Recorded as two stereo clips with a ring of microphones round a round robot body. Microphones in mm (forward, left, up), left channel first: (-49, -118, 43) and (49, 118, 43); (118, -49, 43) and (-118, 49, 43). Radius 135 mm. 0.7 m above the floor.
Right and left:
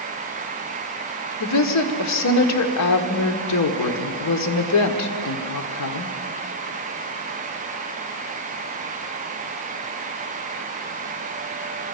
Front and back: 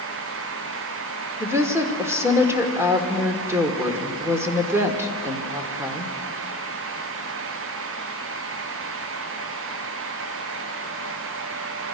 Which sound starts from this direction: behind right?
A woman speaking, at 1.4 s.